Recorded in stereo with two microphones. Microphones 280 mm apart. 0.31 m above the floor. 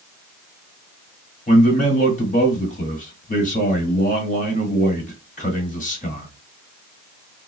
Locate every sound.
1.5 s a man speaking: 25° left (ahead or behind), 1.3 m